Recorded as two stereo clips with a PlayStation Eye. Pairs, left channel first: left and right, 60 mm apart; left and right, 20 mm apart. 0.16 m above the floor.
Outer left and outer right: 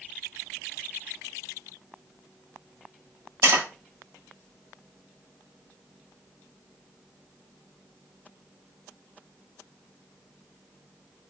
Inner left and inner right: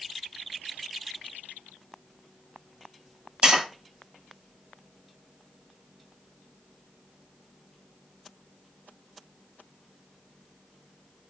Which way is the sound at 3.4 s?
75° right (ahead or behind).